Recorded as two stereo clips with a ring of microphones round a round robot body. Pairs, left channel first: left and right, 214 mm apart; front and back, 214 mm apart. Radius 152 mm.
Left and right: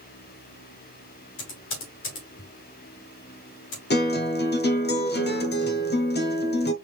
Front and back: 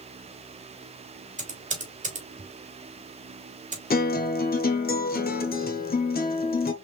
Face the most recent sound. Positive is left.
turn(degrees=50)